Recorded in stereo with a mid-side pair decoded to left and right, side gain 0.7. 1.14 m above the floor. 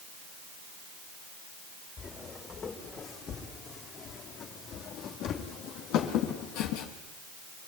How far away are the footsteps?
About 4.5 m.